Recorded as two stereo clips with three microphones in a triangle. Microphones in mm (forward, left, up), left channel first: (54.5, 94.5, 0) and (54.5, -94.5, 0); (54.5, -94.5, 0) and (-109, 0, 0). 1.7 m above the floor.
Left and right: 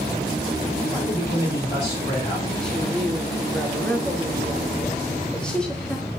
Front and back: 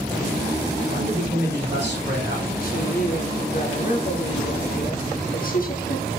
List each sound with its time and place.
0.9 s a man speaking: 150° left, 3.5 m
2.6 s a woman speaking: 5° left, 1.4 m